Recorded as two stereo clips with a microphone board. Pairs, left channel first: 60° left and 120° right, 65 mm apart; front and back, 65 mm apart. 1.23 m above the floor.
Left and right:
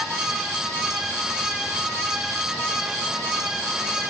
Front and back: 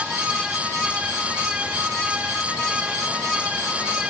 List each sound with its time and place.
Only background noise.